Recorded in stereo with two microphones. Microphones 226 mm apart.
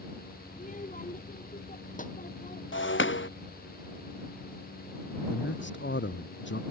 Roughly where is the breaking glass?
Left.